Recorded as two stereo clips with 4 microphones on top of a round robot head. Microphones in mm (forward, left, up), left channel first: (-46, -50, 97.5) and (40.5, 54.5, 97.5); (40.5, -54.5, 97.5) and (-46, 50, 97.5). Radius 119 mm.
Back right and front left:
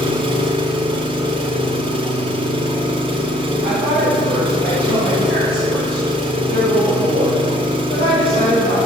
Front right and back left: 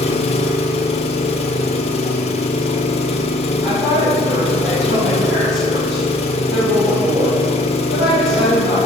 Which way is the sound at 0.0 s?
5° right.